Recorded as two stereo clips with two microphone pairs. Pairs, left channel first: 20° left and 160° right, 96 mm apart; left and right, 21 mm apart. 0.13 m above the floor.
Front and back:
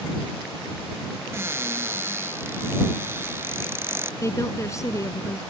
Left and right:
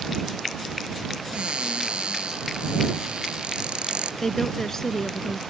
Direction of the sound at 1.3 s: 100° right.